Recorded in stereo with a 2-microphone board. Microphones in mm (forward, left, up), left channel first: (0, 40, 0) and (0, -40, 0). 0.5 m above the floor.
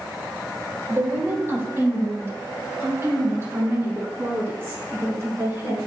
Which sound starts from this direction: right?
A woman speaking, at 0.9 s.